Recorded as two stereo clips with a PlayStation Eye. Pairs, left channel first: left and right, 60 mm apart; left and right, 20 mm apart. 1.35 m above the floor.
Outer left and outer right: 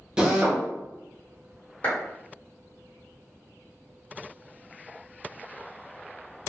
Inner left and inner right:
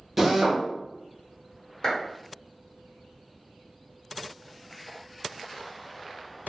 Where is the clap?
25° left (ahead or behind), 1.2 m.